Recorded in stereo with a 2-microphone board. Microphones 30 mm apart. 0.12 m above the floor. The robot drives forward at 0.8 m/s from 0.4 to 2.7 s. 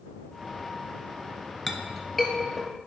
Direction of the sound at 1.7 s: 5° left (ahead or behind).